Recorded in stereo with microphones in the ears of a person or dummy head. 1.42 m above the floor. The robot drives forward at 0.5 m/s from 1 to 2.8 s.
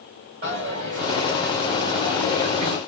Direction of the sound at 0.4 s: 40° right (ahead or behind).